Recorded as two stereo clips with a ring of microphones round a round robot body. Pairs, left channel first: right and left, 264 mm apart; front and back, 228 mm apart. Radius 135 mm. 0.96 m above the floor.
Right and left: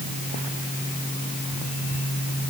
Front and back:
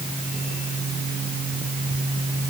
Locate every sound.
Only background noise.